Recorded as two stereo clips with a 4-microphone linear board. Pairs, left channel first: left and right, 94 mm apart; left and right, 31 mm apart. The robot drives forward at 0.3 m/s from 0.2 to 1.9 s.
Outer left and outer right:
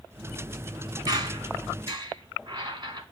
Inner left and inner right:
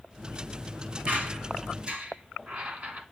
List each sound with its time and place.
1.1 s a squeak: 50° right (ahead or behind), 1.2 m; by 3.0 s 55° right (ahead or behind), 1.1 m